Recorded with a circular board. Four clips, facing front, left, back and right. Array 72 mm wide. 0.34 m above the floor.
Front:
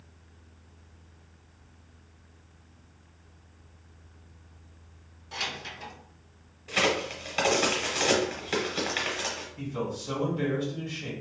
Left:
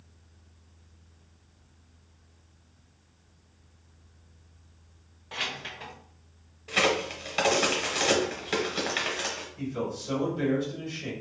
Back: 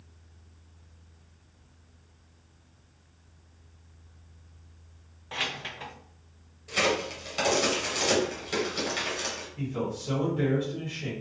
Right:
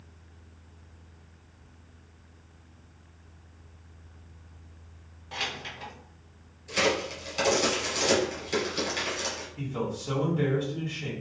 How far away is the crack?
About 1.1 m.